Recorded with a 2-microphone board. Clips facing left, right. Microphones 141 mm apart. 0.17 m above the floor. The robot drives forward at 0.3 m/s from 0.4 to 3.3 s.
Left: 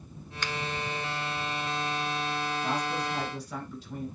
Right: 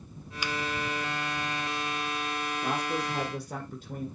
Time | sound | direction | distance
0.4 | a finger snap | 10° right (ahead or behind) | 0.8 m
2.6 | a woman speaking | 55° right (ahead or behind) | 1.9 m